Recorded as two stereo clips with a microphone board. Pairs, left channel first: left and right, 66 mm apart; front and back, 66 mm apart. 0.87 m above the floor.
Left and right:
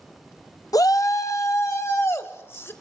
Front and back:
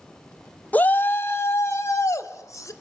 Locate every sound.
0.7 s a shout: 65° left, 0.8 m; by 2.7 s 40° left, 2.5 m